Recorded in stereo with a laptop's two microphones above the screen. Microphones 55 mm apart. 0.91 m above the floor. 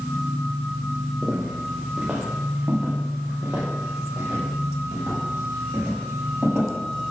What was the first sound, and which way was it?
Footsteps, centre (ahead or behind).